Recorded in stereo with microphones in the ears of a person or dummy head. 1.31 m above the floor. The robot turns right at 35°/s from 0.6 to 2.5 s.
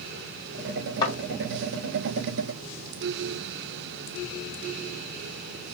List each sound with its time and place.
1.0 s a thud: 30° left (ahead or behind), 1.9 m; by 1.1 s 35° left (ahead or behind), 1.9 m